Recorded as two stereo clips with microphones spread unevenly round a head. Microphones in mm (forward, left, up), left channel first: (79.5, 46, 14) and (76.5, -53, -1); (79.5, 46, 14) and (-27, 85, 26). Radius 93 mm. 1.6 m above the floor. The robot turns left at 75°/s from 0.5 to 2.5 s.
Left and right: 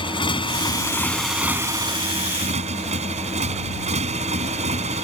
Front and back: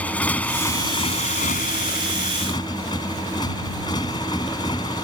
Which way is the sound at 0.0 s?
60° left.